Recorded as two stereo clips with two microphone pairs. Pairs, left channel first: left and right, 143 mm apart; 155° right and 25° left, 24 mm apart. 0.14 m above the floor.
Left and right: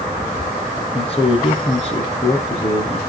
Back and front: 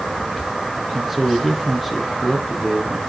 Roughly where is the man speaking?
Left.